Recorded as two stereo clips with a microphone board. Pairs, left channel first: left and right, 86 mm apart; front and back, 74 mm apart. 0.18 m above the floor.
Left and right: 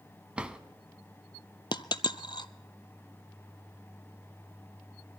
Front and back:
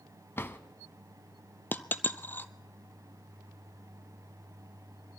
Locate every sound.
0.4 s a drawer: 20° right, 0.7 m
1.7 s a dropped coin: 65° left, 0.5 m